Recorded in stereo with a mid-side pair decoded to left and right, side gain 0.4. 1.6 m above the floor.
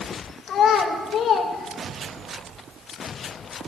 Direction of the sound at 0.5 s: 70° left.